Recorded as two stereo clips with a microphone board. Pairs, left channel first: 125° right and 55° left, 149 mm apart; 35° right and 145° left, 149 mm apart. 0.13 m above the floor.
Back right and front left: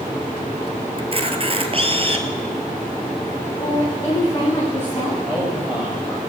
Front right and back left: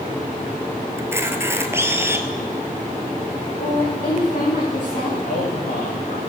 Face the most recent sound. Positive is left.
turn(degrees=-35)